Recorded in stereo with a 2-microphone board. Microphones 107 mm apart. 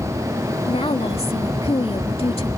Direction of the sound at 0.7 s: 65° left (ahead or behind).